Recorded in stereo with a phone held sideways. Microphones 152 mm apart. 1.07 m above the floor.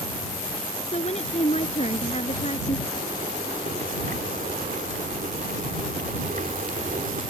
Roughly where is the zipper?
Right.